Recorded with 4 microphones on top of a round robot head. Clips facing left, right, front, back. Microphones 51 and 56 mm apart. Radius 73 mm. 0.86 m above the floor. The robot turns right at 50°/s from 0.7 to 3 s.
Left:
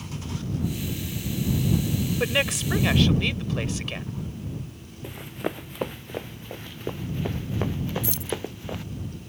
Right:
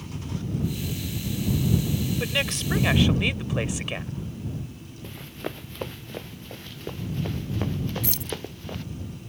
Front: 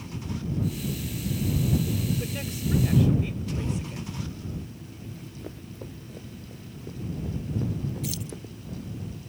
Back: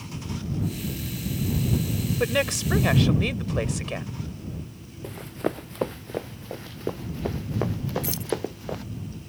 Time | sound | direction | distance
2.2 | a woman speaking | 155° left | ?
5.0 | running footsteps | 165° left | ?
8.0 | keys jangling | 120° right | ?